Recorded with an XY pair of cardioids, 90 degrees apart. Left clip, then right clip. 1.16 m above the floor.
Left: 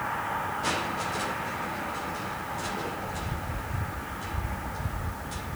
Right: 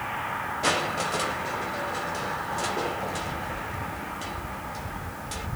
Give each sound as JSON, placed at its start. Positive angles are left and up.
{"t": 0.6, "sound": "crushing", "azimuth_deg": -70, "distance_m": 3.5}